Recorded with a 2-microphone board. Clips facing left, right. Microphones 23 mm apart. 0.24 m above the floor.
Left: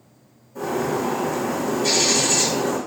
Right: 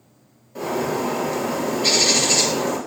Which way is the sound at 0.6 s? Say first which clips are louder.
Even; 55° right (ahead or behind).